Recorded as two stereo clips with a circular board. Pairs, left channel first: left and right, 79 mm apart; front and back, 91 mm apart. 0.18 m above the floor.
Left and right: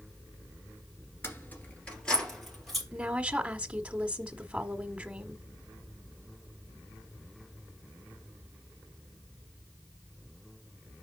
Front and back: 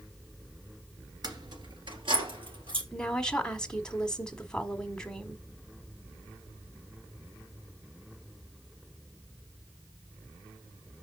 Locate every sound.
1.2 s keys jangling: 145° left, 1.8 m; by 2.8 s straight behind, 3.5 m
2.9 s a woman speaking: 65° right, 1.0 m